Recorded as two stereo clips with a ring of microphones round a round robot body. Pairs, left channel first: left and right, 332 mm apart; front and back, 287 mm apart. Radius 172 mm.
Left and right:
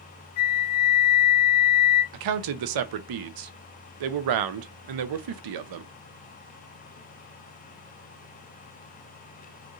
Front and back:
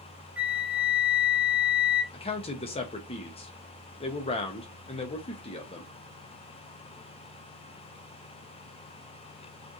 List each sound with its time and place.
0.4 s a flute: 95° left, 0.9 m
2.1 s a man speaking: 70° right, 0.6 m